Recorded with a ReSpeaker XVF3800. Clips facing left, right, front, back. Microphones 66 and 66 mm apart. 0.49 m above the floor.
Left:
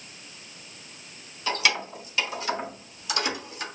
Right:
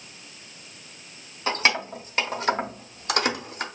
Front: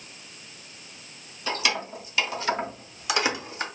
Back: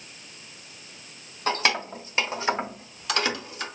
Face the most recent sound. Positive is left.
turn(degrees=-50)